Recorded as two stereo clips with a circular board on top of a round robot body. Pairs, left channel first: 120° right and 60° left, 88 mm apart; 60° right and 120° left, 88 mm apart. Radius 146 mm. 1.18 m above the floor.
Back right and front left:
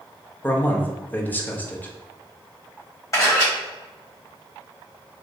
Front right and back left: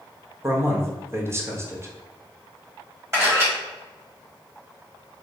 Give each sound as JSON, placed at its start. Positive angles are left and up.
{"t": 0.4, "sound": "a man speaking", "azimuth_deg": 175, "distance_m": 0.8}
{"t": 3.1, "sound": "a camera shutter", "azimuth_deg": 180, "distance_m": 1.4}